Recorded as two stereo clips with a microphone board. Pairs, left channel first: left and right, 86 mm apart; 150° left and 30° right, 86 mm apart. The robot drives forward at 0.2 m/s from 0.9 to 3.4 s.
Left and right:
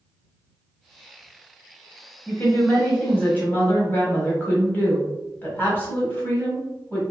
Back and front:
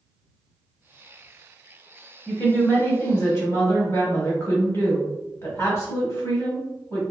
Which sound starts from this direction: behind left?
A woman speaking, at 2.3 s.